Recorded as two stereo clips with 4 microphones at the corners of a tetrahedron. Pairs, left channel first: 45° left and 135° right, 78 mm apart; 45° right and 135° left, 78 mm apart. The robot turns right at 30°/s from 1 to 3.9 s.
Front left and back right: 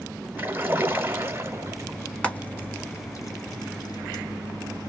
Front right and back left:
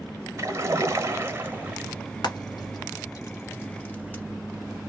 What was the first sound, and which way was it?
A splash, 170° left.